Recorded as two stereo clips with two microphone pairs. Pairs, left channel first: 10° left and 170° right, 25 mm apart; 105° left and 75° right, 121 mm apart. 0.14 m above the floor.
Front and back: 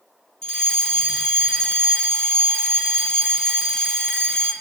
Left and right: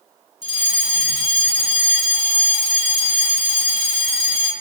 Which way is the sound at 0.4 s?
70° left.